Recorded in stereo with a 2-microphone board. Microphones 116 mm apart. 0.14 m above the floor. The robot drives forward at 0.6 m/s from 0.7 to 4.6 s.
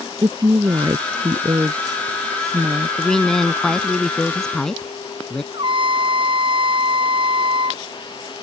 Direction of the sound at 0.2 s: 40° right (ahead or behind).